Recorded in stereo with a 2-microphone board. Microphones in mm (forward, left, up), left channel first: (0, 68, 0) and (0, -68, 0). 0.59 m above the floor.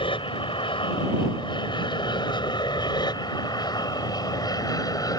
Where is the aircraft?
40° left (ahead or behind); by 5.2 s 25° left (ahead or behind).